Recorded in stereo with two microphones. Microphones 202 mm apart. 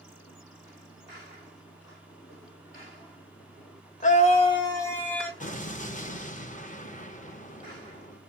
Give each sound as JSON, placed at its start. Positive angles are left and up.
{"t": 4.0, "sound": "a scream", "side_deg": 35, "distance_m": 0.9}
{"t": 5.4, "sound": "an explosion", "side_deg": 35, "distance_m": 0.6}